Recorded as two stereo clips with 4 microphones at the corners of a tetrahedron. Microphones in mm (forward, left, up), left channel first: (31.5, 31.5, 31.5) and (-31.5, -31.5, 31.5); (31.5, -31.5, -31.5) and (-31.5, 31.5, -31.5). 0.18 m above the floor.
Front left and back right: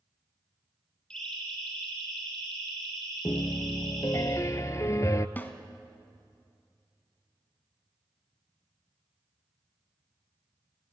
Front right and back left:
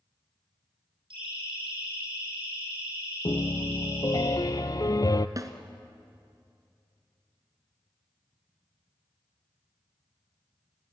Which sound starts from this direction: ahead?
A piano, at 3.2 s.